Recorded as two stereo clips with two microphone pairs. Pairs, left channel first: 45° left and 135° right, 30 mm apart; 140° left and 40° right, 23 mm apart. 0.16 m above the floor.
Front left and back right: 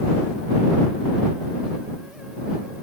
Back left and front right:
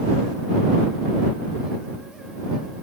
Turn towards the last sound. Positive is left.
No sound to turn to.